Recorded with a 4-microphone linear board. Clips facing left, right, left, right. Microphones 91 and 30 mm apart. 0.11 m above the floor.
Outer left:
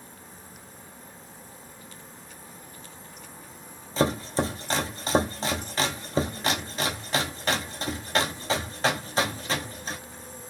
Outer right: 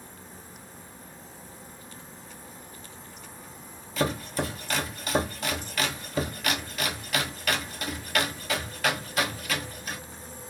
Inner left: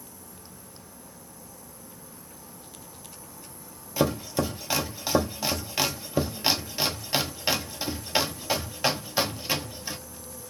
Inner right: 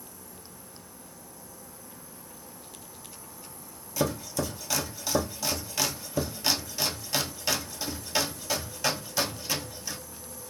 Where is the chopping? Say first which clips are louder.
Outer left 3 dB, inner left 4 dB; 30° left (ahead or behind), 0.6 m.